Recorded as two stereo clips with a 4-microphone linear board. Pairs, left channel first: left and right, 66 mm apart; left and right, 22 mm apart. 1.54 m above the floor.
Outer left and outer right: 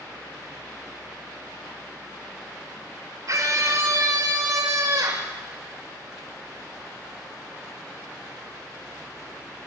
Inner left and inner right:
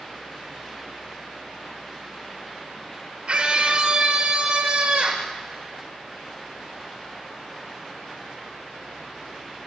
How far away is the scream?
About 5 m.